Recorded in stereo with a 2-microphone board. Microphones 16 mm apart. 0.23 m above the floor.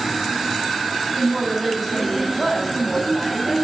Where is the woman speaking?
10° left (ahead or behind), 1.4 m.